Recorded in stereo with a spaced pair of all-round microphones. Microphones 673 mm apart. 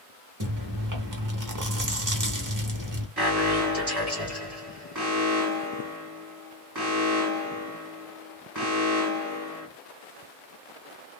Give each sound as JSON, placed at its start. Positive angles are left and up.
{"t": 0.4, "sound": "chewing", "side_deg": -30, "distance_m": 0.9}
{"t": 3.2, "sound": "an alarm", "side_deg": -35, "distance_m": 2.0}